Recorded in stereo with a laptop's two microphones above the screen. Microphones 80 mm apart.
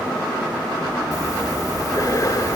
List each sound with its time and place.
1.1 s breathing: 45° left (ahead or behind)